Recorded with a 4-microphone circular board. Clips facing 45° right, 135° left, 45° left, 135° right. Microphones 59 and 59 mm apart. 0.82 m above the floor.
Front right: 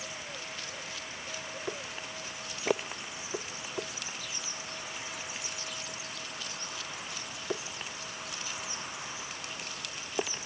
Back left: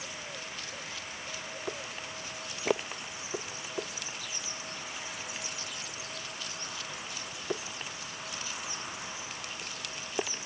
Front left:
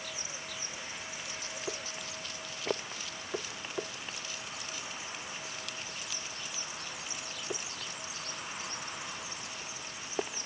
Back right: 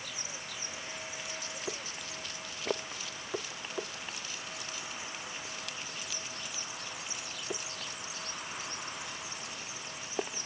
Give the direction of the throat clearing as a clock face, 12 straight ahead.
No throat clearing in this recording.